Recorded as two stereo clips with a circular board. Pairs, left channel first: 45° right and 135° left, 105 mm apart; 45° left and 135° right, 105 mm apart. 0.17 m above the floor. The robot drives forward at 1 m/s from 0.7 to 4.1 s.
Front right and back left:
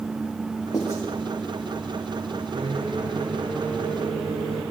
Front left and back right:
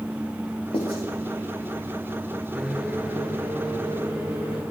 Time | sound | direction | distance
0.7 | writing | 10° left | 4.5 m
2.5 | a microwave | 140° left | 2.0 m